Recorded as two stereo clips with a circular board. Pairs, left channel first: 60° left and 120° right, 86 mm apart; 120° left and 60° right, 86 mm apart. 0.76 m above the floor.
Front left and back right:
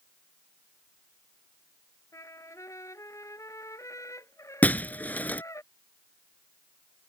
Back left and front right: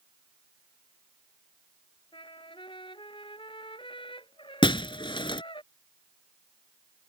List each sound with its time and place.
2.1 s a trumpet: 110° left
4.6 s breaking glass: 130° left